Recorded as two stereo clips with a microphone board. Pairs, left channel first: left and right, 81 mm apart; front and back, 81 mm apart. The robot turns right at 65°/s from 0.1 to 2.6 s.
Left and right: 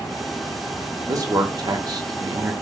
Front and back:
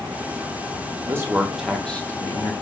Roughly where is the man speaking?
Behind right.